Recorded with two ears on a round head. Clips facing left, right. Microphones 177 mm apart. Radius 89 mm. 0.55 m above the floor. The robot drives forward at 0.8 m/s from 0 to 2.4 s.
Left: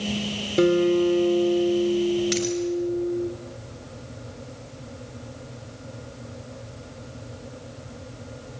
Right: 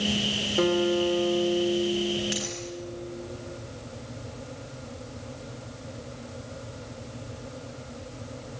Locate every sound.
0.6 s a guitar: 30° left (ahead or behind), 1.7 m; by 3.3 s 45° left (ahead or behind), 1.3 m
2.3 s a dropped coin: 75° left (ahead or behind), 4 m